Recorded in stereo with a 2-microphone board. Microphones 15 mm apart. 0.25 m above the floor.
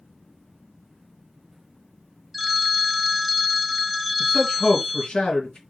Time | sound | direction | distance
2.3 | a phone ringing | centre (ahead or behind) | 0.7 m
4.2 | a man speaking | 65° left (ahead or behind) | 3 m